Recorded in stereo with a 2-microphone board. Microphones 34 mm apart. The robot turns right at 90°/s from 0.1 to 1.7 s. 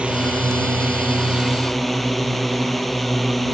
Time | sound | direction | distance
0.0 | a drone | 145° right | ?